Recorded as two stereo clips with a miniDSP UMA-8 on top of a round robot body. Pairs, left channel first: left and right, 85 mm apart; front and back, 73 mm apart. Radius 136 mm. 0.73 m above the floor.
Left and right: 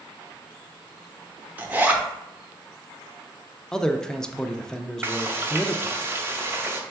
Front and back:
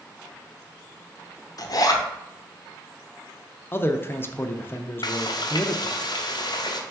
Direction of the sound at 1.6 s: 25° right.